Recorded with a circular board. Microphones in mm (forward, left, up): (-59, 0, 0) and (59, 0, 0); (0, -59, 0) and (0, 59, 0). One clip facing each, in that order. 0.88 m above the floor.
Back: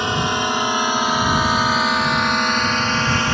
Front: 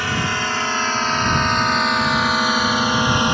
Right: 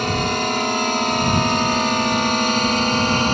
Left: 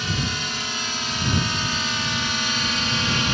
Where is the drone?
115° right; by 3.3 s 65° right.